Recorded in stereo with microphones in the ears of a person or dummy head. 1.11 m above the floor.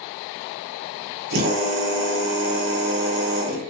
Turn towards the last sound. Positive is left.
turn(degrees=-70)  # may be behind; listen again after turning